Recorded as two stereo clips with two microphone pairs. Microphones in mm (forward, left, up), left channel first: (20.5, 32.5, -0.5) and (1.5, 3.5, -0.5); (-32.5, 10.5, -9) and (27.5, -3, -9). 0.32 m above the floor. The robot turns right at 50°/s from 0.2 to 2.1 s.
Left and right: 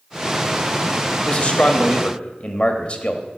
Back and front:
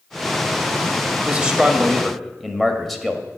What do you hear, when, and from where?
1.2 s a man speaking: 40° left, 1.1 m; by 3.2 s 80° left, 1.1 m